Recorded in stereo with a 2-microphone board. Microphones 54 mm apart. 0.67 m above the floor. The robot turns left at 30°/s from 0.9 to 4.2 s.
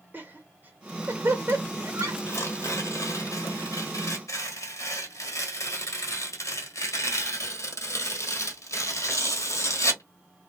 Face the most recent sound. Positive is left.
turn(degrees=75)